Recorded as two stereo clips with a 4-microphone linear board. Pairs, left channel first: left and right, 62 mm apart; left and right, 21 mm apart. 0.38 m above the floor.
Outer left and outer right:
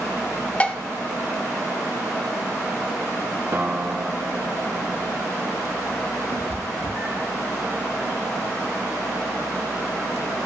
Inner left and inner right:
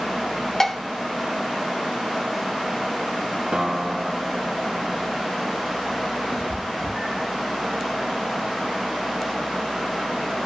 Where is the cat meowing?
85° right, 1.9 m.